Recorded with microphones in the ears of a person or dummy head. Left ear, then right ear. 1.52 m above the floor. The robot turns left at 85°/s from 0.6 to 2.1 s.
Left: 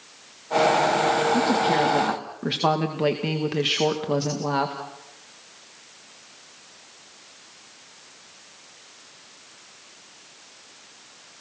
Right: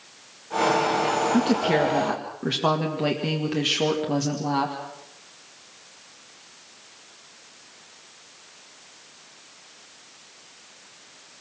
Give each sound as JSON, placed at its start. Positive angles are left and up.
{"t": 1.3, "sound": "a woman speaking", "azimuth_deg": -130, "distance_m": 1.8}